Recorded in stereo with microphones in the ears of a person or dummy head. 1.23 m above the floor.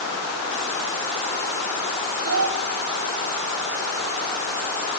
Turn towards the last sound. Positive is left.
turn(degrees=-70)  # may be behind; listen again after turning